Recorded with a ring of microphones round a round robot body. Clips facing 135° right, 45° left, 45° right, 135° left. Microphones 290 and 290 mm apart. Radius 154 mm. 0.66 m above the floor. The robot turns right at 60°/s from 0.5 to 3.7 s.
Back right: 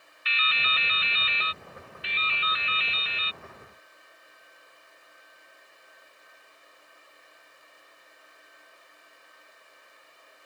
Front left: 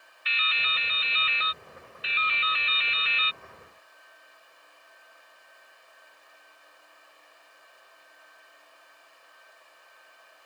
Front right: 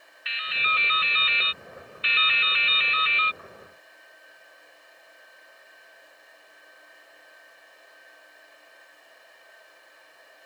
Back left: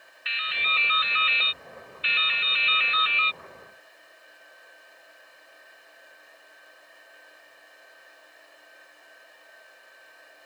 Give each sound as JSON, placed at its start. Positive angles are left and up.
{"t": 0.2, "sound": "dripping", "azimuth_deg": -135}